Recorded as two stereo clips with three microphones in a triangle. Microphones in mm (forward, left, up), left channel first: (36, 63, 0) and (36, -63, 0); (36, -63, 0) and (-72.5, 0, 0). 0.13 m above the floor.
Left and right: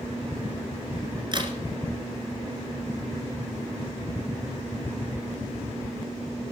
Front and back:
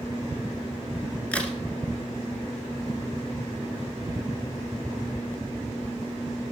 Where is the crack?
105° right, 1.6 m.